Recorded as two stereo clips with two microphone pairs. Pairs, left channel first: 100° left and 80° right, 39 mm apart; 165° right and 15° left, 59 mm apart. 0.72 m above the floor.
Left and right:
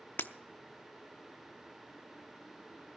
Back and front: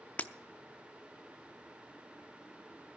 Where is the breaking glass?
135° left, 0.5 m.